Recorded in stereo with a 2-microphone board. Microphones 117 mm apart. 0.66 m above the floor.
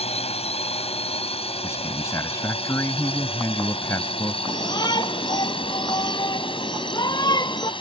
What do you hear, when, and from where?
0.0 s a drone: 60° left (ahead or behind); by 7.8 s 45° left (ahead or behind)
1.6 s a man speaking: 25° left (ahead or behind)
4.5 s a shout: 40° left (ahead or behind)